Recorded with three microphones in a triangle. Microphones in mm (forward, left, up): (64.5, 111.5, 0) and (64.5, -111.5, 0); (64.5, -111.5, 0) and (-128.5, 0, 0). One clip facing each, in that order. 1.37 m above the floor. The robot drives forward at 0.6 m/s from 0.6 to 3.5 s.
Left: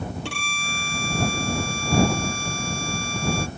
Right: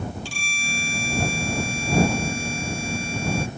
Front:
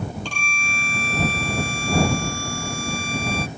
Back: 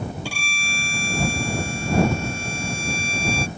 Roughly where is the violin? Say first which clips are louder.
Left 1 dB, even; left.